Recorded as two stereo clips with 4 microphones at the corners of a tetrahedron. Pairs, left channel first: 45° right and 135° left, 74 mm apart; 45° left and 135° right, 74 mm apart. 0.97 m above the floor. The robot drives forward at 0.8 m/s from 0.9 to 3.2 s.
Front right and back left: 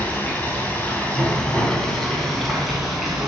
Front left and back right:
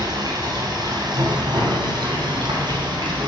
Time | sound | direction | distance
0.0 | running water | 115° right | 3 m